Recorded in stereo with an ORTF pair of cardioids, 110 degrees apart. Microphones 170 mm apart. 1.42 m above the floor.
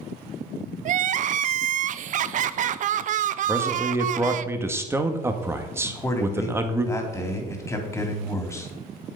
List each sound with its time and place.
0.8 s crying: 50° right, 0.5 m
3.5 s a man speaking: 15° right, 1.7 m
5.8 s a man speaking: 15° left, 3 m